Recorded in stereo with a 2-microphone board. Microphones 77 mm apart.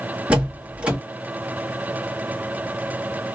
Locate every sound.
0.3 s a door slam: 15° right (ahead or behind), 1.0 m